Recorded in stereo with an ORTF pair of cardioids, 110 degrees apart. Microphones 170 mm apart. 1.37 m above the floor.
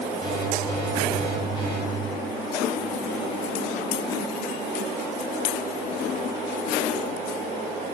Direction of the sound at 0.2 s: 25° left.